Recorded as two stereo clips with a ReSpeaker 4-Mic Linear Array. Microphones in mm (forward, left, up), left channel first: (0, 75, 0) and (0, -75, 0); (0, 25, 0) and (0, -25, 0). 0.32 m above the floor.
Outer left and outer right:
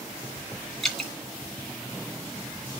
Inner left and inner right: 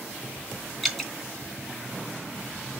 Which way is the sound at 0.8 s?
Centre (ahead or behind).